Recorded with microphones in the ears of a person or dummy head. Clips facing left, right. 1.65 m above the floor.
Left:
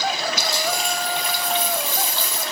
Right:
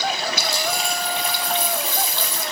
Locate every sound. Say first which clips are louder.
0.4 s a dropped coin: even; 75° right (ahead or behind), 6.5 m